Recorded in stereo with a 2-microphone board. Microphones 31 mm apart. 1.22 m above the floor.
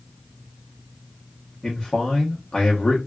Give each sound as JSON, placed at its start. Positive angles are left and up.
{"t": 1.6, "sound": "a man speaking", "side_deg": 25, "distance_m": 0.9}